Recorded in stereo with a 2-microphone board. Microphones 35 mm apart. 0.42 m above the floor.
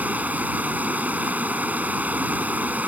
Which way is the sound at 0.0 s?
50° right (ahead or behind).